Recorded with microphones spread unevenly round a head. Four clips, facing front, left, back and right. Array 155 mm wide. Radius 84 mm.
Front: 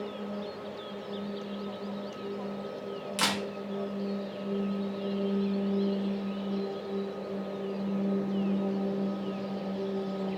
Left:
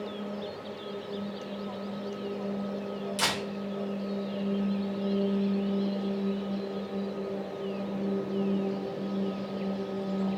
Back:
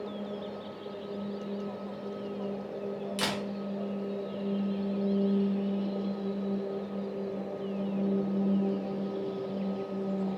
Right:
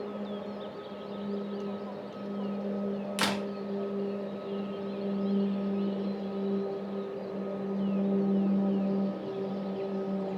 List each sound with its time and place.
3.2 s a camera shutter: 95° right, 0.9 m